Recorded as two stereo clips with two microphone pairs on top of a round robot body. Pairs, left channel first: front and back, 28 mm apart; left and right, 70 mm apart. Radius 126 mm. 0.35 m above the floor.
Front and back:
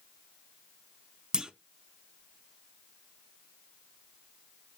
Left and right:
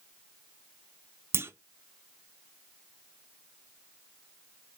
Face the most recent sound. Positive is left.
turn(degrees=-130)